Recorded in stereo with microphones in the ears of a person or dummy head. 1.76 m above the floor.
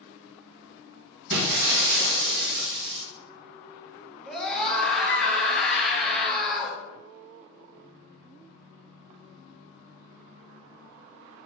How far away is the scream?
About 1.8 m.